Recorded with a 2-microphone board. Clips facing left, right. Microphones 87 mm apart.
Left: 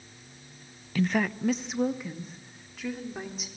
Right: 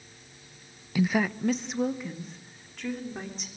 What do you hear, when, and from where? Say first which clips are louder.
0.9 s a woman speaking: right 1 dB; 10° right (ahead or behind), 0.5 m; by 3.5 s 5° left (ahead or behind), 4 m